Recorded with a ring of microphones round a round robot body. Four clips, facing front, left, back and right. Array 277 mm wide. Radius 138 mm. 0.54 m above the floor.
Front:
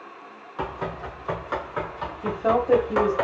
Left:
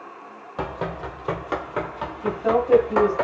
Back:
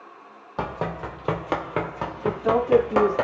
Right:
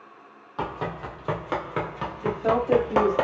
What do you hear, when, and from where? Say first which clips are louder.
0.6 s running footsteps: left 2 dB, back 2 dB; 160° left, 1.3 m; by 3.2 s 125° right, 1.1 m
2.2 s a woman speaking: left 2 dB, even; straight ahead, 1.4 m